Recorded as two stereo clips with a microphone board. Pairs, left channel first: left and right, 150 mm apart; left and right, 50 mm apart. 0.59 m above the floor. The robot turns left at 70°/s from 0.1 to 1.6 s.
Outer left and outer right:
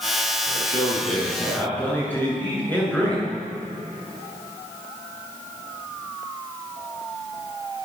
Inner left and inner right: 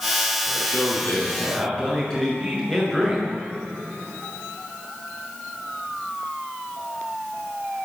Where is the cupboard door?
No cupboard door in this recording.